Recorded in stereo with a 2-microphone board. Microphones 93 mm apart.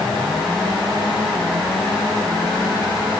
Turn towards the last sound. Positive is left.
No sound to turn to.